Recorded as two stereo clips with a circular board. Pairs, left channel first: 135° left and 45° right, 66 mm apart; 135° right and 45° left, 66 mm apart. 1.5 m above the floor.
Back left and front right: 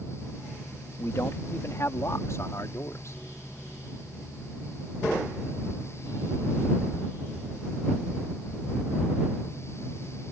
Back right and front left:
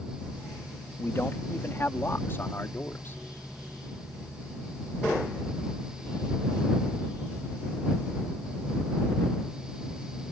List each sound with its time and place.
1.0 s a man speaking: 175° left; by 3.2 s 170° left